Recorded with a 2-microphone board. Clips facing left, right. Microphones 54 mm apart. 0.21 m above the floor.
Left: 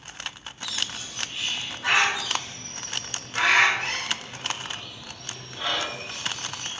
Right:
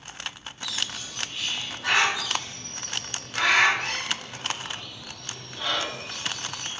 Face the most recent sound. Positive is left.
turn(degrees=15)  # may be behind; listen again after turning